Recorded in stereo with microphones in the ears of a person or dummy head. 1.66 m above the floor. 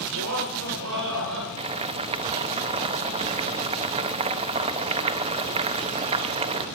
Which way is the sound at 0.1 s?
85° right.